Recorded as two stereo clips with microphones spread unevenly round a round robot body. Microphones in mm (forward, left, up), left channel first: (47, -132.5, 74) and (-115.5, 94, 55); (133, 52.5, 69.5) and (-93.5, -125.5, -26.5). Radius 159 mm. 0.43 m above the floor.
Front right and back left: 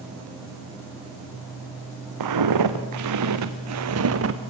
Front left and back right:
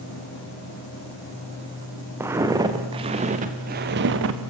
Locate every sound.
2.2 s footsteps: 135° left, 3.5 m; by 4.5 s 170° left, 2.5 m